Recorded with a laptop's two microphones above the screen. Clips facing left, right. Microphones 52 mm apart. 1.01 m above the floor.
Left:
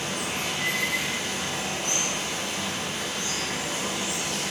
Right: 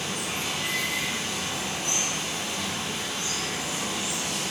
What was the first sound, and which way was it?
Running water, 50° left (ahead or behind).